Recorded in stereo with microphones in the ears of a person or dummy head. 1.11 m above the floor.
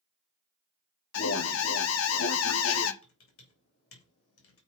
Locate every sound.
1.1 s an alarm: 80° left, 1.0 m
3.0 s typing on a keyboard: 75° left (ahead or behind), 3 m